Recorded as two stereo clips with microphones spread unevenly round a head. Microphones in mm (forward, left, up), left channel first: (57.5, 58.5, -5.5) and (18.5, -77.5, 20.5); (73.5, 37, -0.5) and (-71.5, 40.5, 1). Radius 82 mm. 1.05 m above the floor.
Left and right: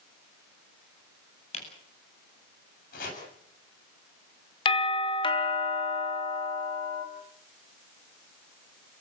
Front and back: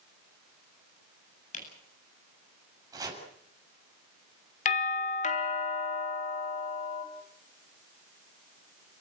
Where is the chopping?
115° left, 7 m.